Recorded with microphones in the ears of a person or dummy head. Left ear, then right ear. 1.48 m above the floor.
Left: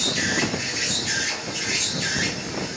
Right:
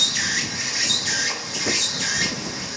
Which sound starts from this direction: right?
An insect, at 0.0 s.